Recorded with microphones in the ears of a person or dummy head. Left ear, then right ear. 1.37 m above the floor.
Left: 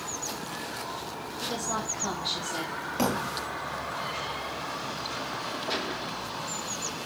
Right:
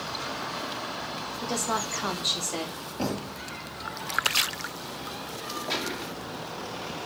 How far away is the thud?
About 1.8 m.